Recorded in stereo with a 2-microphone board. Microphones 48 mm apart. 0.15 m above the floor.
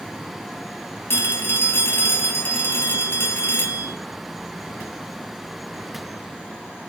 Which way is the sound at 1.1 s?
55° left (ahead or behind).